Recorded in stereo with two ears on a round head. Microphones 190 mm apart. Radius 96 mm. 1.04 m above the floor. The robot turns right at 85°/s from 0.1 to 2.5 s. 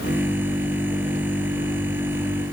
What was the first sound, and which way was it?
Only background noise.